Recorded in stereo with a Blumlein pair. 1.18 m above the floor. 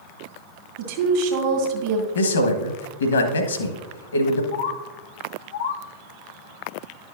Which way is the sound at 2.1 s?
70° left.